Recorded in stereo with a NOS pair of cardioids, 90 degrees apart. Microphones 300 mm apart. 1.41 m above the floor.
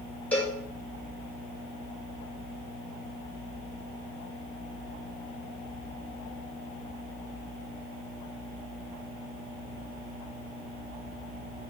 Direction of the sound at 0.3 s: 5° left.